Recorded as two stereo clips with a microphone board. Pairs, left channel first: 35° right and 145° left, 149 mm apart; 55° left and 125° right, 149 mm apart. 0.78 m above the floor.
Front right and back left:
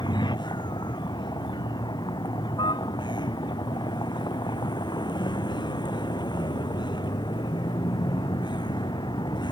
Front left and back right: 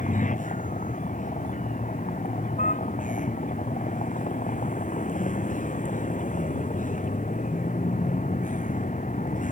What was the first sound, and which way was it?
A vehicle, 25° left.